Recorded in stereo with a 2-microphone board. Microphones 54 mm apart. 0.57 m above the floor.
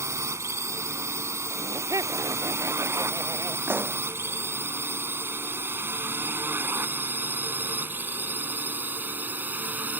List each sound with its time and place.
0.0 s a drone: 60° right (ahead or behind); by 10.0 s 30° right (ahead or behind)
1.5 s laughter: 85° right
3.7 s a pop: 40° right (ahead or behind)